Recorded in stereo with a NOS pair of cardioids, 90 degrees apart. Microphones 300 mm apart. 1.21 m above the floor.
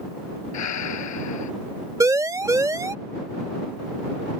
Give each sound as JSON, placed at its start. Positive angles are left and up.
{"t": 0.5, "sound": "breathing", "azimuth_deg": 65}
{"t": 2.0, "sound": "a siren", "azimuth_deg": -10}